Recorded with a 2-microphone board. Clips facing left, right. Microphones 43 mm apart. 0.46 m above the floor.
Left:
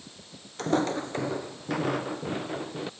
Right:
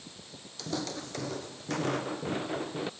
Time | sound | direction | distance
0.6 | footsteps | 45° left (ahead or behind) | ?